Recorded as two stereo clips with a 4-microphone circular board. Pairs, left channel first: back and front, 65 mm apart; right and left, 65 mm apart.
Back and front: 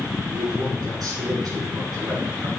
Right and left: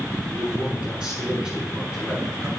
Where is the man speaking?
15° left, 5.5 m.